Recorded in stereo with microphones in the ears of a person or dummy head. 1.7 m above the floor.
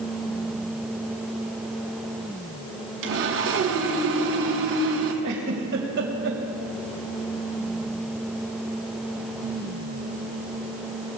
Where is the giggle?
60° right (ahead or behind), 2 m.